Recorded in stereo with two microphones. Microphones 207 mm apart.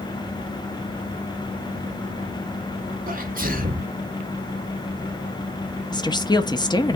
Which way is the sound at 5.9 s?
20° left (ahead or behind).